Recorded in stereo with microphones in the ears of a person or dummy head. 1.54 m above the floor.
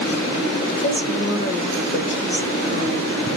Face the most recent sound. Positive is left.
turn(degrees=50)  # may be behind; listen again after turning